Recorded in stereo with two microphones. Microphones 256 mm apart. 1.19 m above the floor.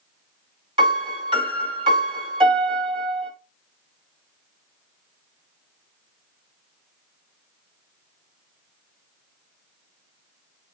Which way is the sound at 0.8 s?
20° right (ahead or behind).